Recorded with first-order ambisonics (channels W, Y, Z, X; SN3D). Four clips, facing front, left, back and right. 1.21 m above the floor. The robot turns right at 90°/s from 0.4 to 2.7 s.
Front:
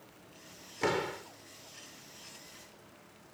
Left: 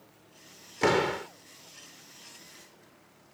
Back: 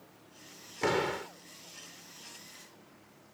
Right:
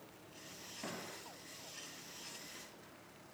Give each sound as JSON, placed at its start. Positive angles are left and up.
{"t": 0.8, "sound": "a door slam", "azimuth_deg": 90}